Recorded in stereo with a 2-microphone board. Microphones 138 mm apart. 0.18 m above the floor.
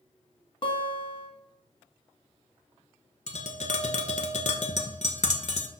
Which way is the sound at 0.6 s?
40° left (ahead or behind).